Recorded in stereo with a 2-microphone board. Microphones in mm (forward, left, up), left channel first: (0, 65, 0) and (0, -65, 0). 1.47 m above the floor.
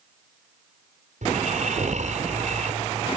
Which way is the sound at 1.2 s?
70° right (ahead or behind).